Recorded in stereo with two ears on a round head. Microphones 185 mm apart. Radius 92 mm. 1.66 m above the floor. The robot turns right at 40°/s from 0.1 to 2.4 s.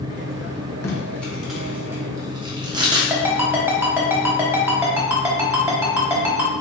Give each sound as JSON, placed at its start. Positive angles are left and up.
{"t": 0.8, "sound": "tape being pulled", "side_deg": 15, "distance_m": 0.9}
{"t": 3.1, "sound": "a ringtone", "side_deg": -10, "distance_m": 1.2}